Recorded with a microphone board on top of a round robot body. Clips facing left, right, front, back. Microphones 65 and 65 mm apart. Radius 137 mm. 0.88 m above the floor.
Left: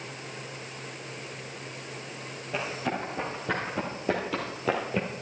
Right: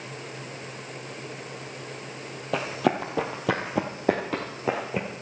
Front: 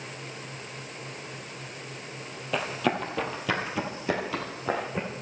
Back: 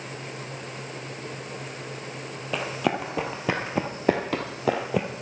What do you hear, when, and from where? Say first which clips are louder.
2.5 s running footsteps: right 6 dB, back 1 dB; 95° right, 1.7 m; by 5.2 s straight behind, 1.4 m